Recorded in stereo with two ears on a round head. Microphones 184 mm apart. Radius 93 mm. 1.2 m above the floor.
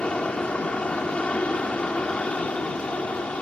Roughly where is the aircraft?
Centre.